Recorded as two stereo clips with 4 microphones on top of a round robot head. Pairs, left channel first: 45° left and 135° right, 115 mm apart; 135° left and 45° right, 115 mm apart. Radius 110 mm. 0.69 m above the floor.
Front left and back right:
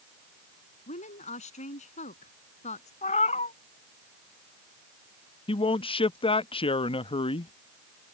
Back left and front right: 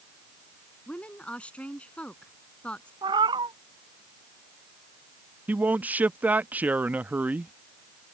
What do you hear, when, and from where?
0.9 s a woman speaking: 55° left
3.0 s a cat meowing: 10° left
5.5 s a man speaking: 30° left